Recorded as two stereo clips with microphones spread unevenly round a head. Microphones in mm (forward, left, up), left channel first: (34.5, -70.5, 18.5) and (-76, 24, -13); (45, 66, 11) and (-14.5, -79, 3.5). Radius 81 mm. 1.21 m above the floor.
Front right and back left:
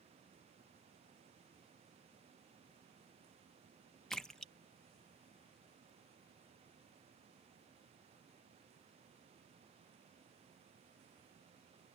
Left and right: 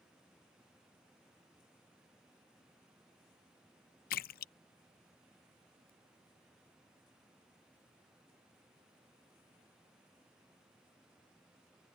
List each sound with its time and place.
4.1 s a splash: 40° left